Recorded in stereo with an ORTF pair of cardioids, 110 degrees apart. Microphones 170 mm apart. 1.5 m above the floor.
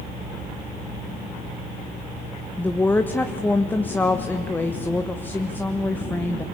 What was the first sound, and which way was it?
A woman speaking, 10° left.